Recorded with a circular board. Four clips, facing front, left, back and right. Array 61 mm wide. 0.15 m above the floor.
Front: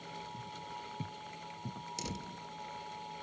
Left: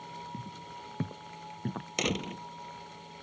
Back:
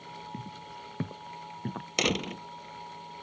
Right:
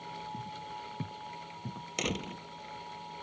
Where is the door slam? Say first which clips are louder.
Left 3 dB, back 17 dB; 170° left.